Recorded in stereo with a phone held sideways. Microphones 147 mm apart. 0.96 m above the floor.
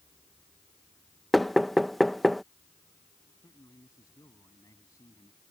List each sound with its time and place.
1.3 s knocking: centre (ahead or behind)
3.4 s a man speaking: 25° left (ahead or behind)